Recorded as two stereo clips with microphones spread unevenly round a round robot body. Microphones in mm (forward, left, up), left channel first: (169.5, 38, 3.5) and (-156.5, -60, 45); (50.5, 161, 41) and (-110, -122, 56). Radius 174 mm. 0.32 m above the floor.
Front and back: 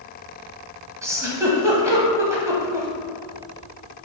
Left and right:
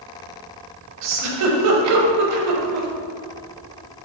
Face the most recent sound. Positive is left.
turn(degrees=-80)